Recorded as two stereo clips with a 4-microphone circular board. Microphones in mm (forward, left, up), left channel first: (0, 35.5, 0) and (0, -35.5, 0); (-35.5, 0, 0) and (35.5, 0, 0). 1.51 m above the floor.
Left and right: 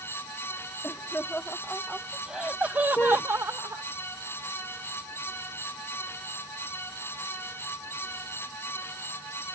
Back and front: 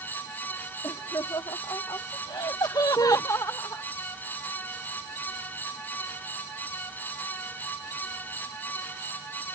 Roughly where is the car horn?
Behind left.